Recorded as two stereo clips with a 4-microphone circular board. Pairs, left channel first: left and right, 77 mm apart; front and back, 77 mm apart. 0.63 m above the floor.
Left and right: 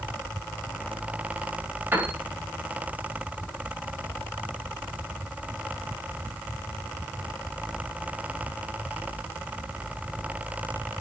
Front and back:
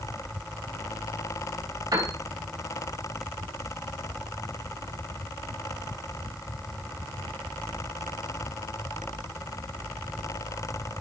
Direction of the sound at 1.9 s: 155° right.